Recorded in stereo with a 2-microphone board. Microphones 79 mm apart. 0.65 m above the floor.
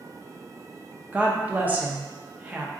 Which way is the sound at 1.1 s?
20° right (ahead or behind).